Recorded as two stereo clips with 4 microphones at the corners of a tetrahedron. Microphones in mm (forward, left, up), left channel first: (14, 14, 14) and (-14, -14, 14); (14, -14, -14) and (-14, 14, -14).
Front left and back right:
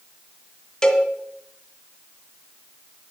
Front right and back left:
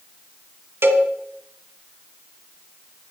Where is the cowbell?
115° left, 1.5 m.